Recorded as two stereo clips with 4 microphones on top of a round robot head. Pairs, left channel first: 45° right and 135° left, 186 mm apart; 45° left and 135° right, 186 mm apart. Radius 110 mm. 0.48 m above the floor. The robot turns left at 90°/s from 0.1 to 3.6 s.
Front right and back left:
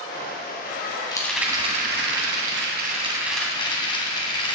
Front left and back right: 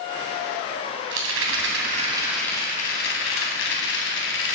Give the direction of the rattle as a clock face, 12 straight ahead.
4 o'clock.